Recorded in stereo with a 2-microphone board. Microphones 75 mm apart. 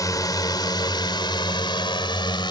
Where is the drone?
50° left (ahead or behind); by 2.5 s 75° left (ahead or behind).